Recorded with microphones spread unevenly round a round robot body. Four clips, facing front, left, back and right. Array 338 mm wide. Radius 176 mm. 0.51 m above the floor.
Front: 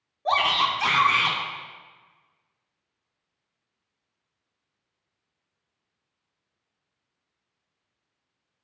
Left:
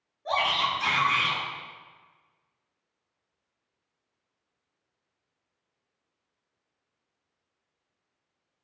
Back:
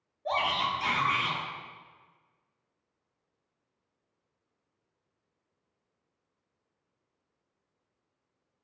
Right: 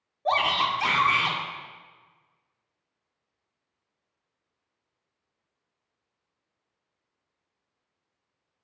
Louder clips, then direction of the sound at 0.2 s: Right 3 dB, front 6 dB; 45° right.